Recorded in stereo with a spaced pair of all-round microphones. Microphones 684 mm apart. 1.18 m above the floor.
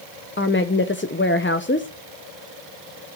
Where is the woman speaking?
15° left (ahead or behind), 0.7 m.